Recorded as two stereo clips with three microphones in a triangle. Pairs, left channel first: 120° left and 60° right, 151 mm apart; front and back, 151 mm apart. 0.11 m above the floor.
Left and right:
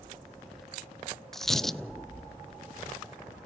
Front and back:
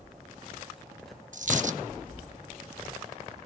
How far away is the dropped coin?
About 0.6 m.